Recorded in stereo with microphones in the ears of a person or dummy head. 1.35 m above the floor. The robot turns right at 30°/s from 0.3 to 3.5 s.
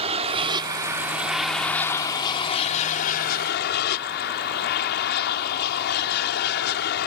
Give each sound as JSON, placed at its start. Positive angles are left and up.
{"t": 0.0, "sound": "an aircraft", "azimuth_deg": -40}